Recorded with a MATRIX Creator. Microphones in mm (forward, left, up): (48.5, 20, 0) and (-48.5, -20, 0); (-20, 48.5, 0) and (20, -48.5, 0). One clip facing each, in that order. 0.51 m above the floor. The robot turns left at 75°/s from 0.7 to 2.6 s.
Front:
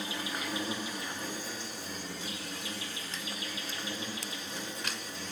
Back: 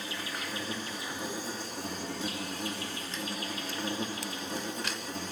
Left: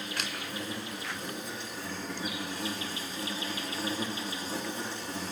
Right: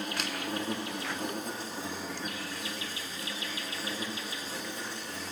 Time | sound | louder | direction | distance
0.0 | an insect | front 1 dB, right 3 dB | 45° right | 3 m